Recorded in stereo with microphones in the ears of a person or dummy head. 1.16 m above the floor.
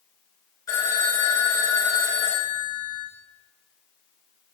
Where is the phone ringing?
15° left (ahead or behind), 3 m.